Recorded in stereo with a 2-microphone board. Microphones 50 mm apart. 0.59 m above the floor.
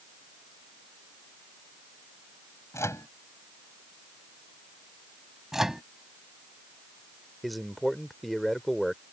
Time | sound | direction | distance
2.7 | a microwave | 75° left (ahead or behind) | ?
5.5 | a microwave | 10° right (ahead or behind) | ?
7.4 | a man speaking | centre (ahead or behind) | ?